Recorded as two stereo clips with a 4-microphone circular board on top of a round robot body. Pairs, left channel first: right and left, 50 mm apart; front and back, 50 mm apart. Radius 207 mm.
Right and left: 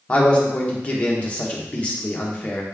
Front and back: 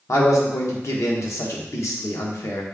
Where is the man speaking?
20° right, 1.3 m.